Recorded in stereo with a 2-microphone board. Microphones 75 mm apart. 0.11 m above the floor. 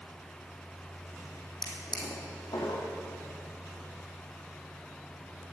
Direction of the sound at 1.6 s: 75° left (ahead or behind).